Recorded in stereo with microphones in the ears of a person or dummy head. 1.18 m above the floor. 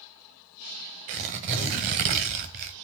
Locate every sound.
1.1 s tearing paper: 40° right (ahead or behind), 1.2 m